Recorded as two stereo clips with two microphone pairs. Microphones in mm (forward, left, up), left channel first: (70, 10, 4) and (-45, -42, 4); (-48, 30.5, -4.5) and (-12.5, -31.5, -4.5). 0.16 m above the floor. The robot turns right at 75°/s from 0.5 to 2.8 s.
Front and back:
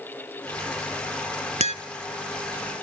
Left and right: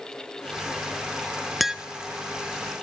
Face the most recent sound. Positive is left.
turn(degrees=-60)